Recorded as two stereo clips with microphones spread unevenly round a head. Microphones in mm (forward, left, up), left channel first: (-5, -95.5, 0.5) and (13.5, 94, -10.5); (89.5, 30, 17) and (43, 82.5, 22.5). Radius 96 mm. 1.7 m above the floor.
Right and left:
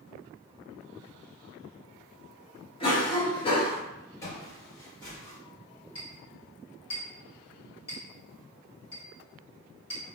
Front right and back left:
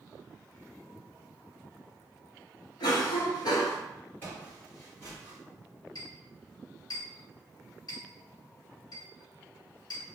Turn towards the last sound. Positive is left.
turn(degrees=-40)